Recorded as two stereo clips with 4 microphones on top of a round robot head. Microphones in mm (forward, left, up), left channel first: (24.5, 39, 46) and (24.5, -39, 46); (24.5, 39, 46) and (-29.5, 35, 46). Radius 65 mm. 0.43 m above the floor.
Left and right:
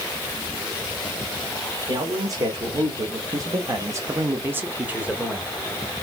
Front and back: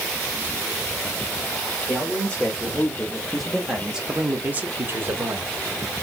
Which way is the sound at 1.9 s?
60° right.